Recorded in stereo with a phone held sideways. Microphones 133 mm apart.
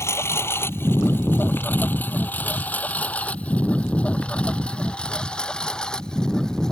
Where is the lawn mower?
20° left (ahead or behind); by 6.7 s 5° left (ahead or behind).